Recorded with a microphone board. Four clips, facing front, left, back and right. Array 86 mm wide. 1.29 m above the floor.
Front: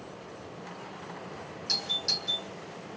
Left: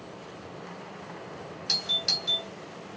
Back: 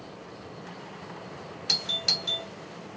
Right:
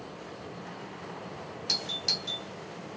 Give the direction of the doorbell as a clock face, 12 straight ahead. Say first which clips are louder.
Left 2 dB, back 3 dB; 6 o'clock.